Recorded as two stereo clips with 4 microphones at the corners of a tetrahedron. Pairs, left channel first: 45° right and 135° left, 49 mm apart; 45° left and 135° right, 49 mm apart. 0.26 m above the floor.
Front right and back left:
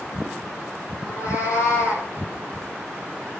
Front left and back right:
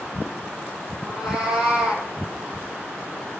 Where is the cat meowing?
60° right, 2 m.